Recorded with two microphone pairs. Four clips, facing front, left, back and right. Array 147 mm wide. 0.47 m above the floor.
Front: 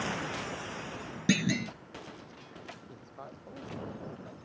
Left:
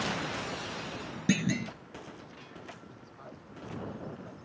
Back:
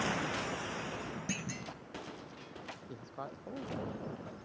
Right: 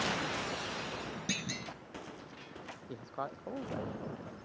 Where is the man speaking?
90° right.